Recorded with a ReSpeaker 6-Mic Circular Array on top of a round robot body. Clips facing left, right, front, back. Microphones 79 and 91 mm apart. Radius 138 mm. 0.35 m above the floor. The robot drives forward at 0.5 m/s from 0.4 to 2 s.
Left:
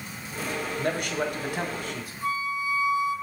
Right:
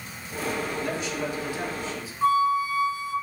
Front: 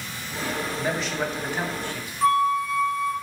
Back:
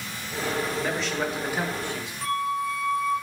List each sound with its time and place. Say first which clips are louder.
0.8 s a man speaking: left 2 dB, front 1 dB; 80° left, 1.5 m; by 2.1 s 110° left, 1.5 m
2.2 s a flute: right 8 dB, front 7 dB; 65° right, 1.7 m